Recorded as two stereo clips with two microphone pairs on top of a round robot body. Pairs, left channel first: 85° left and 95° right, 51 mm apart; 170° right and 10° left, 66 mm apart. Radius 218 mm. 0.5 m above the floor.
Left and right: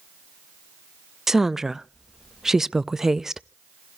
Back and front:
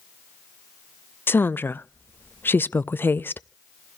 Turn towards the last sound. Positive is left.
turn(degrees=-170)